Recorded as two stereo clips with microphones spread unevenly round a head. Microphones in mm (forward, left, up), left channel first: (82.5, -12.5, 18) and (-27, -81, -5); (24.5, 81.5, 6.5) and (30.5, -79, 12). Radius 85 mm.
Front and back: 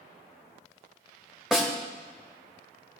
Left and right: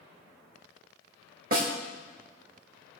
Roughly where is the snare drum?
Ahead right.